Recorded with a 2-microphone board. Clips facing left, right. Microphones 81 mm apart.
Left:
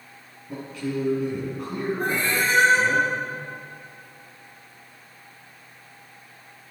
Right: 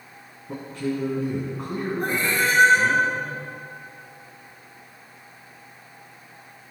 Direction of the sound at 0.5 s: 35° right (ahead or behind).